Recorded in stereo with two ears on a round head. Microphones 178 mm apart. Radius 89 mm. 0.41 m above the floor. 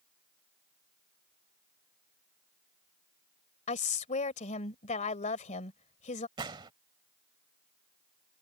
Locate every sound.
3.7 s a woman speaking: 35° left (ahead or behind)
6.4 s a gunshot: 25° right (ahead or behind)